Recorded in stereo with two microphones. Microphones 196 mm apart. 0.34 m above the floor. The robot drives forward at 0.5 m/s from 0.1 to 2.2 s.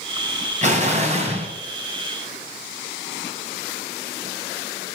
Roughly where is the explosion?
Right.